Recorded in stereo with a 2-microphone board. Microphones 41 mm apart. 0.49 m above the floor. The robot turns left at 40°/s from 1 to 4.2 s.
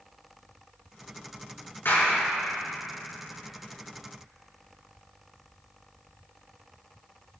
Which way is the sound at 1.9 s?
70° left (ahead or behind).